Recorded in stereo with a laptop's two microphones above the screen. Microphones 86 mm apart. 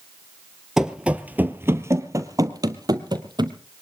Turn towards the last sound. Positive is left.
turn(degrees=-60)  # may be behind; listen again after turning